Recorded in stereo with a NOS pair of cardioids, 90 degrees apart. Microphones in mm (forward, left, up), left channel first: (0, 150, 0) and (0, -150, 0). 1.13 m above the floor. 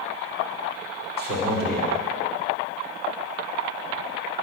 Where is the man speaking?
30° right, 2.5 m.